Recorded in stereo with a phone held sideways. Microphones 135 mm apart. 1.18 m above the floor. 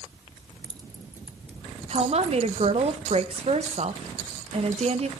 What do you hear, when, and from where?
0.4 s keys jangling: 50° right (ahead or behind), 1.0 m; by 2.4 s 5° left (ahead or behind), 2 m
1.9 s a woman speaking: 55° right (ahead or behind), 1.2 m